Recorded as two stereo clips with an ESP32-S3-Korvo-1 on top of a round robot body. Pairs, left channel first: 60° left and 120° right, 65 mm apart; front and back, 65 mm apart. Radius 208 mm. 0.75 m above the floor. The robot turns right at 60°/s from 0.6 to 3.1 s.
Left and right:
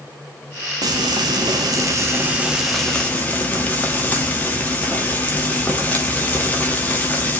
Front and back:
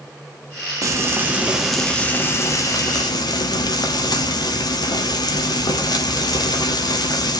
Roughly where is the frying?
Behind right.